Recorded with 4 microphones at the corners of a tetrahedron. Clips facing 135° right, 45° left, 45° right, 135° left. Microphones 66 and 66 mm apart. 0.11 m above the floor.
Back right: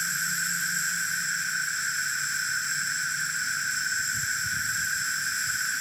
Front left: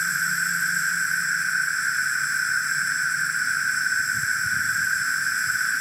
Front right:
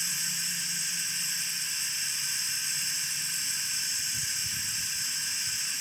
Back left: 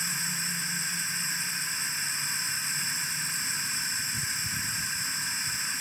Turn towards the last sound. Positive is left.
turn(degrees=95)